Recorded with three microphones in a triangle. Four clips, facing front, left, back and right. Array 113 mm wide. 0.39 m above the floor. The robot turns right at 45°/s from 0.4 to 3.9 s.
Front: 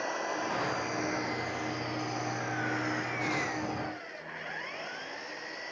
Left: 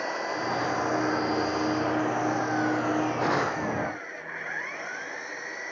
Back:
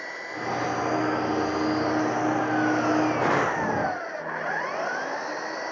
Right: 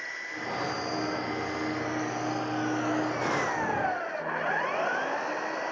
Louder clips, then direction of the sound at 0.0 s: Left 8 dB, even; 70° left.